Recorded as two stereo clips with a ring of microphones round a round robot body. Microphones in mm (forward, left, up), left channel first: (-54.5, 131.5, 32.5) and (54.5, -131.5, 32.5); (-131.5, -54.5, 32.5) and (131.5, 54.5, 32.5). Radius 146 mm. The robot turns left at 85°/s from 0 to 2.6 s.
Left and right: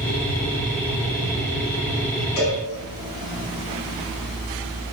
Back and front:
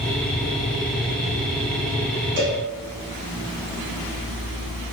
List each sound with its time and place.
2.4 s a cowbell: 75° left, 4.5 m; by 2.6 s 55° left, 4.5 m